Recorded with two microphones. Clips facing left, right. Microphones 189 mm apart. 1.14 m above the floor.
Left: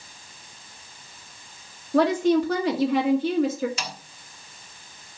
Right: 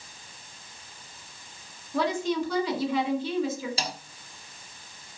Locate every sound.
1.9 s a woman speaking: 80° left, 1.8 m
3.8 s a snare drum: 35° right (ahead or behind), 1.2 m